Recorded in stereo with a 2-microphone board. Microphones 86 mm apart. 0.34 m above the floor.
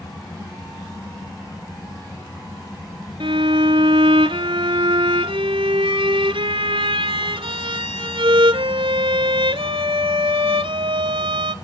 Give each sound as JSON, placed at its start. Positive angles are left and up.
{"t": 3.2, "sound": "a violin", "side_deg": -80, "distance_m": 0.8}